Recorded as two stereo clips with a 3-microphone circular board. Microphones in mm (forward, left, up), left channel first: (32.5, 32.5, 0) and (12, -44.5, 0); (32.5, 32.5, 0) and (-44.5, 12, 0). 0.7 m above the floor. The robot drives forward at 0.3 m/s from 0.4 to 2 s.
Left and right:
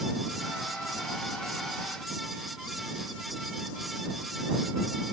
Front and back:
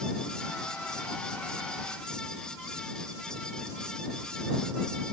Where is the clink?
I don't hear a clink.